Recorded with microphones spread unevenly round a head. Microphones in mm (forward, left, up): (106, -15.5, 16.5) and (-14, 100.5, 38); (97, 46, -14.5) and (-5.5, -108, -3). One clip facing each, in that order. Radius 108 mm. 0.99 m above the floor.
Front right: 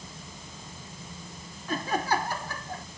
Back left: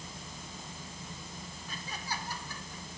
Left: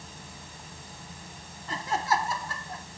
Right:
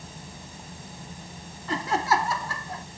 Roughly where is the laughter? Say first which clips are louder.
Front right 15 dB, right 4 dB; right.